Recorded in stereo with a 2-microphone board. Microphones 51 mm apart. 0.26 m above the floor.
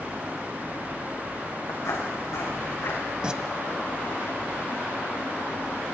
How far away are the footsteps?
About 5.5 m.